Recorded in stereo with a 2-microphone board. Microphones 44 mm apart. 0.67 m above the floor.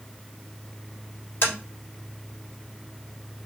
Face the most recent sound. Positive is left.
turn(degrees=60)  # may be behind; listen again after turning